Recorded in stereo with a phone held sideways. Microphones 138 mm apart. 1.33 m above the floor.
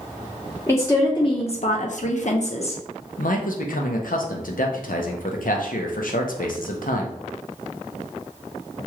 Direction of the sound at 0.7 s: 20° left (ahead or behind).